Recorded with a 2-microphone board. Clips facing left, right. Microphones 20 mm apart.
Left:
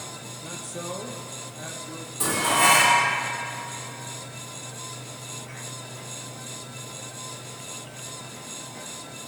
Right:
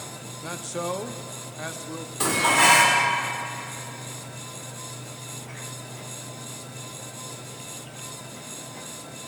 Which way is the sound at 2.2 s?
40° right (ahead or behind).